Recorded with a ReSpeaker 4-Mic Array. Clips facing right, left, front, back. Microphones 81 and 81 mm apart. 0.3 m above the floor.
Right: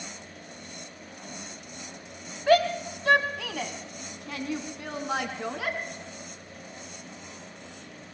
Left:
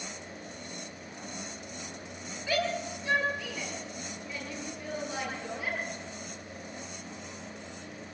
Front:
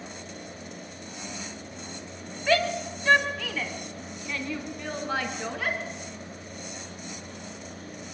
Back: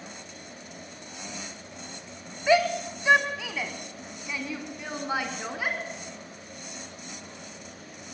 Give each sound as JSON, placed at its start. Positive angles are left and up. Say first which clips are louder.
{"t": 2.5, "sound": "a shout", "louder": "right 9 dB, back 2 dB", "azimuth_deg": -105, "distance_m": 2.0}